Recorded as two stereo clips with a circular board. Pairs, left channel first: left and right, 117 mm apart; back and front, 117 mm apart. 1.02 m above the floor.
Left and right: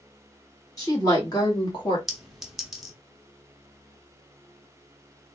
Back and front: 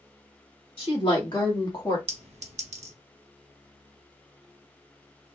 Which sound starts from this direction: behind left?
A woman speaking, at 0.8 s.